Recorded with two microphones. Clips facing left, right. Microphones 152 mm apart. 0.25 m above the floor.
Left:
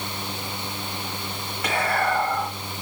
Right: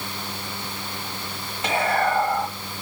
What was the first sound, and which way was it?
Whispering, 25° right (ahead or behind).